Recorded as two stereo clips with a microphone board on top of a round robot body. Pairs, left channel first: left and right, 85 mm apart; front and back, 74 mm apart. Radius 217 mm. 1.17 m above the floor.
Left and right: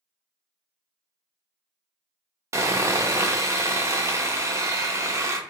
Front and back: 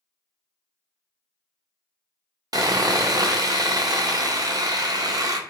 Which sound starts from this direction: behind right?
Sawing, at 2.5 s.